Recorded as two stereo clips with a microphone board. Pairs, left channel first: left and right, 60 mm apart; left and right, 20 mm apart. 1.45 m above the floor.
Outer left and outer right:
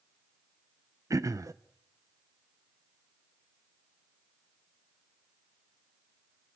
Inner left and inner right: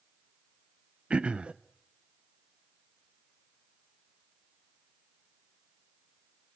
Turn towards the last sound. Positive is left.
turn(degrees=-60)  # may be behind; listen again after turning